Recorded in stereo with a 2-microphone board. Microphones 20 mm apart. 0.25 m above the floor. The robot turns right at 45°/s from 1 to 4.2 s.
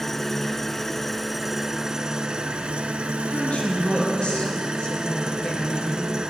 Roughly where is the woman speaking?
Left.